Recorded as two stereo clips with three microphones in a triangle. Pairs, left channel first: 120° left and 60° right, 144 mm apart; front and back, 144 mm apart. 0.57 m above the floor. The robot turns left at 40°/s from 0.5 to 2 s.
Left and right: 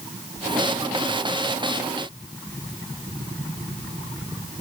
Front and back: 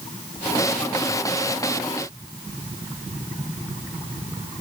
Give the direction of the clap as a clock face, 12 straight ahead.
No clap in this recording.